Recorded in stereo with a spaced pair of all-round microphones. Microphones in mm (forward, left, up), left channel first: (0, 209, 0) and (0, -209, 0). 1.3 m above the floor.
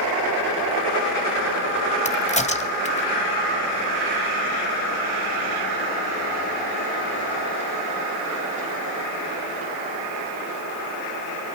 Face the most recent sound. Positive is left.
turn(degrees=15)  # may be behind; listen again after turning